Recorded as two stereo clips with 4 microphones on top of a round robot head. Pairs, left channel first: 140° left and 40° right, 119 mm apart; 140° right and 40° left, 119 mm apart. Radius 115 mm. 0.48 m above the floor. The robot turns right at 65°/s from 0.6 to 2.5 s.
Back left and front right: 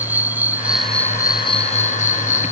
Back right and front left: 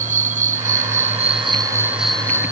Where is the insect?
35° left; by 2.5 s 160° left.